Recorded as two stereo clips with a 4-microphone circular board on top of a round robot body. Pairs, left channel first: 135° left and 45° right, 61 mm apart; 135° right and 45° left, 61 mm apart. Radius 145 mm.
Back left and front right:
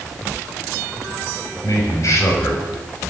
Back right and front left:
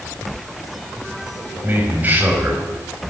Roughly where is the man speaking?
Left.